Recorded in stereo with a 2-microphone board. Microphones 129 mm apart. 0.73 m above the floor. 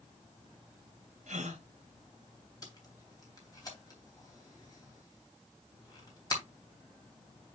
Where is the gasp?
70° right (ahead or behind), 2 m.